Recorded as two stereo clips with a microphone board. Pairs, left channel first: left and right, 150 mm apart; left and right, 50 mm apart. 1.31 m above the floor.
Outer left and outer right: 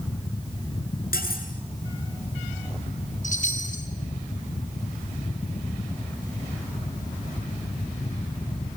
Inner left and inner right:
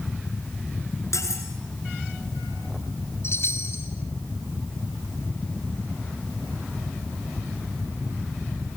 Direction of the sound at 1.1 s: 85° left.